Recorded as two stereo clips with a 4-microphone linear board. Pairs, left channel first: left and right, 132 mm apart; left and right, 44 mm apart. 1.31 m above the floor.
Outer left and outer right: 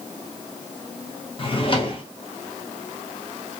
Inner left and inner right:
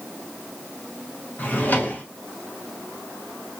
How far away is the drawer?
About 0.6 m.